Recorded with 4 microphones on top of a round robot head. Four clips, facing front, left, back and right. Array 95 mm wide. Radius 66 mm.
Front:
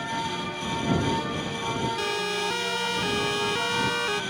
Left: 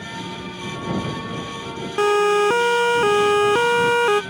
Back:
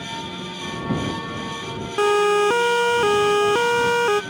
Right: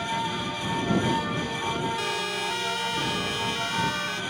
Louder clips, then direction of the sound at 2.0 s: Left 14 dB, back 12 dB; 130° left.